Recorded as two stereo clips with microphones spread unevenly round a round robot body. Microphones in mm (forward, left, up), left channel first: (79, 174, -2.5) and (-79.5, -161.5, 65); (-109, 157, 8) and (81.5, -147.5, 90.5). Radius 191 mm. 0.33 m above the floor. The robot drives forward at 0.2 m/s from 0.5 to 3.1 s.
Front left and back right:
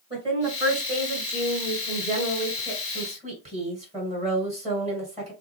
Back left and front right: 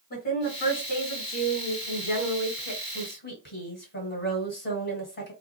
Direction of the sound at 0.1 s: 160° left.